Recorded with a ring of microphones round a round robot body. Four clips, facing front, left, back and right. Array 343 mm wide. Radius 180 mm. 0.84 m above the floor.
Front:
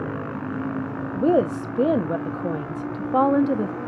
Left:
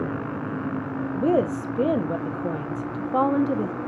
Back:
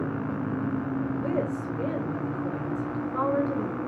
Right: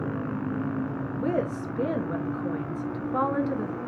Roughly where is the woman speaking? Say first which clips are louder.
Left 7 dB, front 8 dB; ahead left.